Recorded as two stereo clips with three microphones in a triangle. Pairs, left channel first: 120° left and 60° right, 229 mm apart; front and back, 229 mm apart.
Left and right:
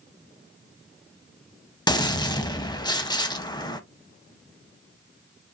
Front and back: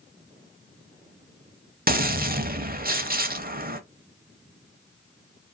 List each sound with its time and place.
1.9 s a gunshot: straight behind, 0.8 m